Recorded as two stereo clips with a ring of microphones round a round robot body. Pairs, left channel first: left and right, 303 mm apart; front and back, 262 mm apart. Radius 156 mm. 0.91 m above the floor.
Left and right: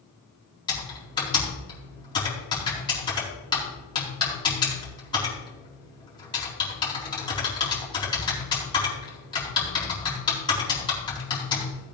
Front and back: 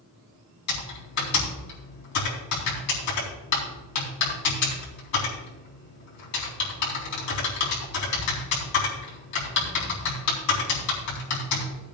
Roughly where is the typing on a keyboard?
Ahead.